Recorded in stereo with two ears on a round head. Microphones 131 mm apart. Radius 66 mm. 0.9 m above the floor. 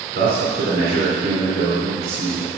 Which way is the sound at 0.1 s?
75° right (ahead or behind).